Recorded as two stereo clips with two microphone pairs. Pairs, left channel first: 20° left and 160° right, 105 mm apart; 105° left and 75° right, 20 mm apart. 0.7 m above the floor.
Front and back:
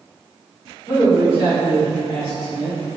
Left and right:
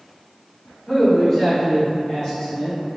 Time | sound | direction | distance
0.9 | a man speaking | 35° left | 1.2 m